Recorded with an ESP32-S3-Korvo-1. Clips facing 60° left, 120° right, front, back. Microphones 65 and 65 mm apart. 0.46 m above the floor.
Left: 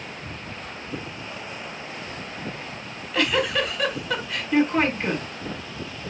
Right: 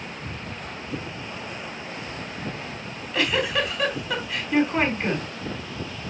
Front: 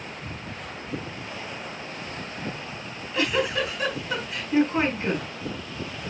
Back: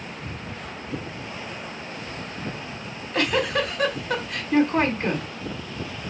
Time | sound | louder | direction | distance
2.8 | a giggle | left 1 dB, back 2 dB | 150° left | 4 m